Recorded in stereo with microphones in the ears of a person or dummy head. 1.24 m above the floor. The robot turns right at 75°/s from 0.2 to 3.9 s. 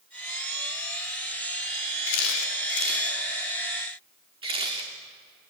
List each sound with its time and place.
2.1 s a camera shutter: 70° left (ahead or behind), 2.5 m; by 4.9 s 25° right (ahead or behind), 2.5 m